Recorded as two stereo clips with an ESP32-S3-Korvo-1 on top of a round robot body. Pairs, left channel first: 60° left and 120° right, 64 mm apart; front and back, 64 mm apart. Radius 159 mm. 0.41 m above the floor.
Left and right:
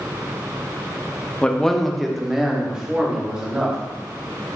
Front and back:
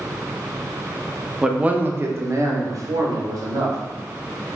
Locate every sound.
1.4 s a man speaking: 115° left, 0.8 m; by 3.8 s 165° left, 1.9 m